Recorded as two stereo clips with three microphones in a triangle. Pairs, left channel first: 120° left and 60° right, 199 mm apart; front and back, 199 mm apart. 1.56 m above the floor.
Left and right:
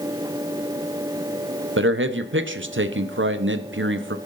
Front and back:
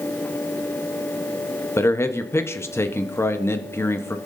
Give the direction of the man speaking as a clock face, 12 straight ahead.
3 o'clock.